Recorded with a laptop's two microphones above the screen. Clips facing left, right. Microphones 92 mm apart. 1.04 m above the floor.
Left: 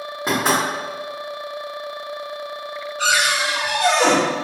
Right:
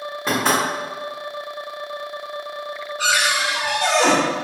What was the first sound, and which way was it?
Knocking, 15° left (ahead or behind).